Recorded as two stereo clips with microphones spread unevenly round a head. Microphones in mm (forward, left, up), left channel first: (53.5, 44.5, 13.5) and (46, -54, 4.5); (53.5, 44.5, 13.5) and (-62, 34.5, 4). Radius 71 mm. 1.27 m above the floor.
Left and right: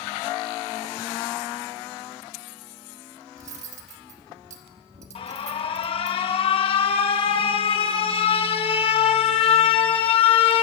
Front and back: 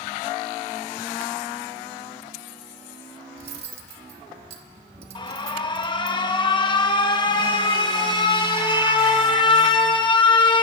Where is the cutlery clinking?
125° right, 1.2 m.